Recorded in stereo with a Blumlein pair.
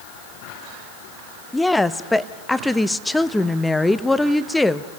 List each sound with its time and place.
1.5 s a woman speaking: 5° left, 0.8 m